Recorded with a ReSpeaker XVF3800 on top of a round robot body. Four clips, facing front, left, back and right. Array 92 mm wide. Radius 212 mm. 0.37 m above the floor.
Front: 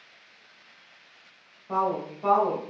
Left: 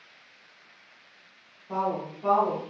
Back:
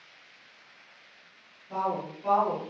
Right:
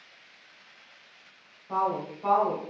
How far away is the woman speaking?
About 3 m.